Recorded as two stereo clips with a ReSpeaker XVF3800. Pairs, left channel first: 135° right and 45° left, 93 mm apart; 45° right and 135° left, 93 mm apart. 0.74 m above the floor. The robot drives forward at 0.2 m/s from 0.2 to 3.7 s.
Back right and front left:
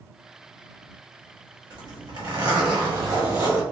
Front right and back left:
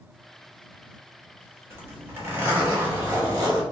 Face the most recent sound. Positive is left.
turn(degrees=95)